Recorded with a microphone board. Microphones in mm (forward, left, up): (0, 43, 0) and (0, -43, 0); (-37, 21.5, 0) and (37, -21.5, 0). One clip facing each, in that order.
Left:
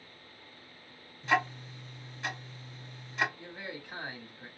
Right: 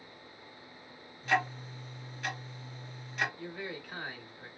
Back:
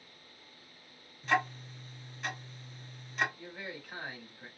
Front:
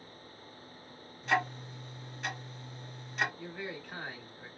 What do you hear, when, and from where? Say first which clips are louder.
1.2 s ticking: left 1 dB, even; 60° left, 1.7 m
3.4 s a man speaking: right 2 dB, front 3 dB; 70° left, 1.1 m